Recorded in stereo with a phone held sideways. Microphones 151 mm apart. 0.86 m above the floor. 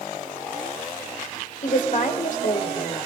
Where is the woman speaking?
60° left (ahead or behind), 2.5 m.